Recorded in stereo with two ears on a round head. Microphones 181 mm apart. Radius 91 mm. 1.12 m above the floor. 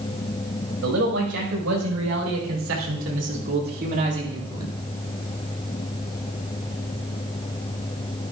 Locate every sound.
0.8 s a man speaking: 80° right, 5.5 m; by 4.7 s 20° right (ahead or behind), 2.5 m